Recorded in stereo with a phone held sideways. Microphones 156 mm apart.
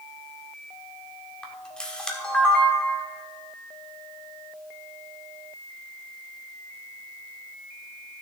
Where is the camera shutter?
5° left (ahead or behind), 1.4 m.